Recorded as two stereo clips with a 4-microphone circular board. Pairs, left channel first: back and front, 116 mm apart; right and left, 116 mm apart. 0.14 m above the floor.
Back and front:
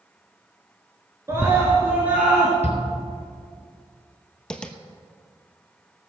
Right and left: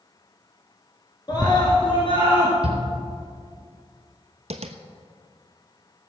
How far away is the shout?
About 3.5 m.